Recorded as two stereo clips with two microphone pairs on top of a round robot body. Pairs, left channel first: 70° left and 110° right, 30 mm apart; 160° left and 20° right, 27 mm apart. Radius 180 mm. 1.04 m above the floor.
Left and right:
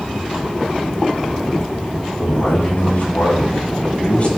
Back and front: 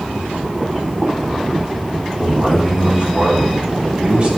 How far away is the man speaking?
About 5 m.